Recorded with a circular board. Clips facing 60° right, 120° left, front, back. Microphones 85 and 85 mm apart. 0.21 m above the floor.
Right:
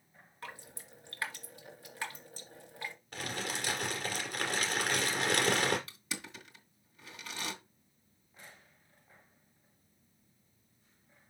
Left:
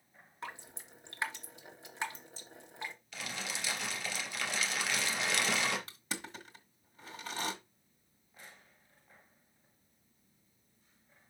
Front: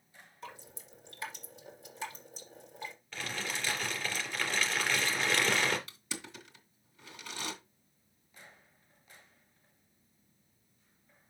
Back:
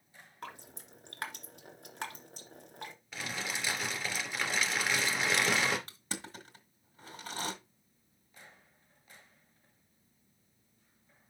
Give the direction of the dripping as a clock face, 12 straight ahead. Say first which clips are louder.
Left 2 dB, back 2 dB; 6 o'clock.